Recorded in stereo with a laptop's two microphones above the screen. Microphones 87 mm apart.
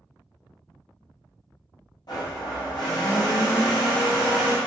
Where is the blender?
50° left (ahead or behind), 0.9 m.